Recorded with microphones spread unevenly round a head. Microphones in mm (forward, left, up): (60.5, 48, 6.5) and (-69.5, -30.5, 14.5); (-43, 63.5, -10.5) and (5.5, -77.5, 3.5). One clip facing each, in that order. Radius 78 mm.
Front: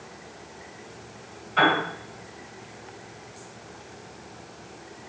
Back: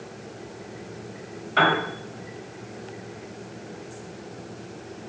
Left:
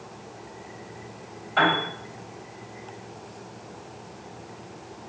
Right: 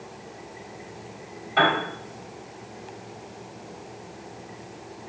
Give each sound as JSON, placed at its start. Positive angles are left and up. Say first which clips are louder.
{"t": 1.6, "sound": "a piano", "louder": "even, right 1 dB", "azimuth_deg": -140, "distance_m": 1.4}